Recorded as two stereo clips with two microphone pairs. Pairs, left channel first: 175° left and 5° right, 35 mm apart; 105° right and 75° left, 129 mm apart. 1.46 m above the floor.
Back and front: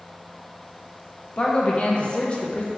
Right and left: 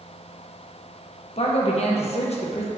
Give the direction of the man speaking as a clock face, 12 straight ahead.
4 o'clock.